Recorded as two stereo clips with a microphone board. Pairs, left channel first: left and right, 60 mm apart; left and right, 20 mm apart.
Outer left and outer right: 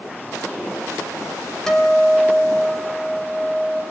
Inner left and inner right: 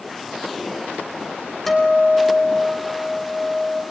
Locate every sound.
1.7 s a guitar: 5° left (ahead or behind), 4.5 m